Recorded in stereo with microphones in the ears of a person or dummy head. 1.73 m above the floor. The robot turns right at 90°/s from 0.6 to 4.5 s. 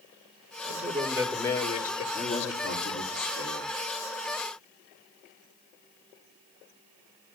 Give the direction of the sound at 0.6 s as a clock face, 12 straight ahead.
2 o'clock.